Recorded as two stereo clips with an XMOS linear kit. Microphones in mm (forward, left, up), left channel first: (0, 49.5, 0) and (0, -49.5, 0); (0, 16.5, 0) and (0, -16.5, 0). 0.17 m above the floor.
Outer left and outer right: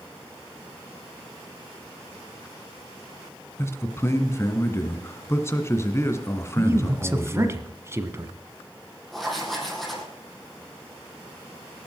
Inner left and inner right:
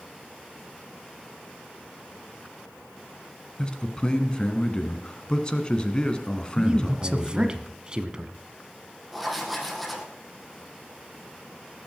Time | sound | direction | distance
3.6 | a man speaking | 25° left (ahead or behind) | 1.6 m
6.6 | a man speaking | 25° right (ahead or behind) | 1.2 m
9.1 | writing | centre (ahead or behind) | 3 m